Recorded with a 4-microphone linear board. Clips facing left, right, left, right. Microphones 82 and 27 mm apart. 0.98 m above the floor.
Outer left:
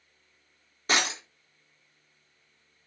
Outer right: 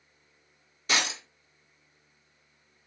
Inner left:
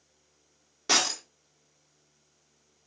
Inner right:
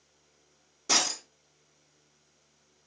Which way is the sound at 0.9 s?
40° left (ahead or behind).